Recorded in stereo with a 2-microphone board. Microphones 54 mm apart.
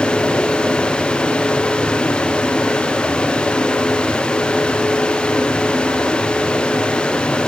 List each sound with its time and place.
Only background noise.